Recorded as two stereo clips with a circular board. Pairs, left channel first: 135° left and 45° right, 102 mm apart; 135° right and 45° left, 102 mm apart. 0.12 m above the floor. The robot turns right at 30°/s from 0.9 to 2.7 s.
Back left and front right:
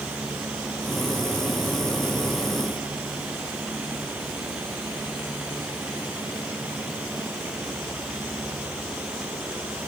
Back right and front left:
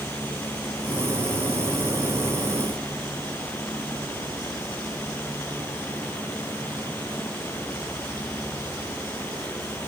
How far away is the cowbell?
No cowbell in this recording.